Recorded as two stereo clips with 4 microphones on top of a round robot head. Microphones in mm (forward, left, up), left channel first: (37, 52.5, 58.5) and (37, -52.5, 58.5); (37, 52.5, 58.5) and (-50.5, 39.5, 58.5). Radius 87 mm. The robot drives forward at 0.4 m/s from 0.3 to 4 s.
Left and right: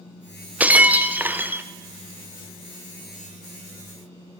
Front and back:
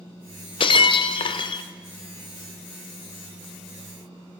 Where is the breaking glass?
15° right, 1.6 m; by 1.6 s 20° right, 1.2 m.